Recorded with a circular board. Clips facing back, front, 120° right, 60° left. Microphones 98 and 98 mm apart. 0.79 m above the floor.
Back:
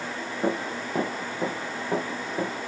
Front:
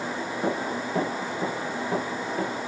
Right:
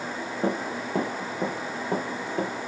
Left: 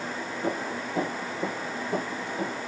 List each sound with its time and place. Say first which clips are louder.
0.4 s running footsteps: back 1 dB, right 3 dB; 100° right, 5.5 m; by 2.5 s 105° right, 6.5 m